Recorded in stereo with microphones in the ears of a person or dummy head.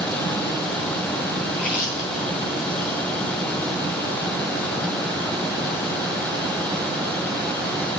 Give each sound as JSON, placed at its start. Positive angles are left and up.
{"t": 1.5, "sound": "chewing", "side_deg": 60, "distance_m": 8.0}